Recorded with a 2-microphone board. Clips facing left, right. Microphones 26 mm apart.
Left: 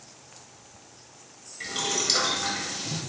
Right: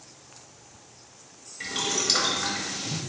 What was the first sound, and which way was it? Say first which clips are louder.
Boiling: right 1 dB; 5° right (ahead or behind).